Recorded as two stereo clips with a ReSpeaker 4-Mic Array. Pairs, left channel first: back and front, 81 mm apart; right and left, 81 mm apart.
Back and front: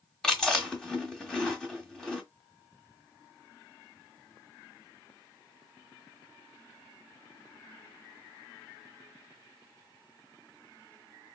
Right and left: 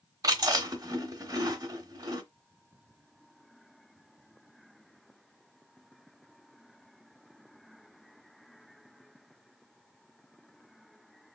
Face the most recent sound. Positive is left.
turn(degrees=95)